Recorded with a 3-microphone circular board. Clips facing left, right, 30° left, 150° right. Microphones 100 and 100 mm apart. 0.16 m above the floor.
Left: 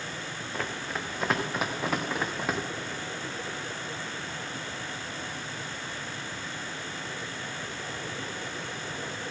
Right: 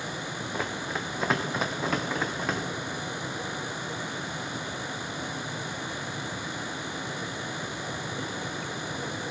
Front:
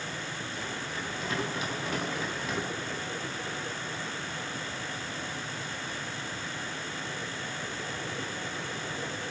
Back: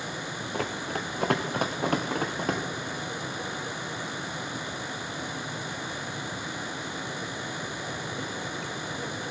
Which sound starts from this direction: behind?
Running footsteps, at 0.5 s.